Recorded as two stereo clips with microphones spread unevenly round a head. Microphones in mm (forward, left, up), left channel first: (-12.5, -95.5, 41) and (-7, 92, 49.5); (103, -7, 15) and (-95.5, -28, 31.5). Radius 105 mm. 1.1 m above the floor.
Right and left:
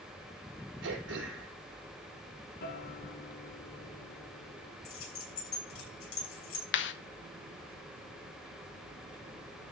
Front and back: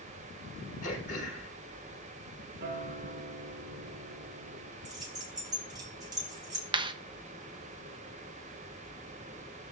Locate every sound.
0.8 s throat clearing: 60° left, 5 m
2.6 s a guitar: 130° right, 1.8 m
4.8 s keys jangling: 105° right, 6.5 m
6.7 s a clap: 105° right, 1.0 m